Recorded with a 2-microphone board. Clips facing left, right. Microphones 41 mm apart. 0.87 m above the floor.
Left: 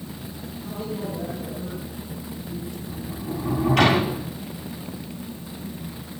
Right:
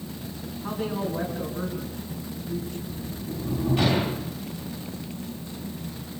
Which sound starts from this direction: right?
A woman speaking, at 0.6 s.